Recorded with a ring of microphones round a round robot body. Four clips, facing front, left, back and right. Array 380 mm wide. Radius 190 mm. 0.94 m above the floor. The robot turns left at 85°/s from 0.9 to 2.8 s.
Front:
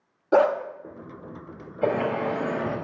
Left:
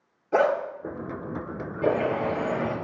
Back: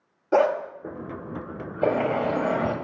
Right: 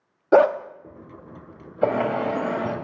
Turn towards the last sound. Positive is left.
turn(degrees=180)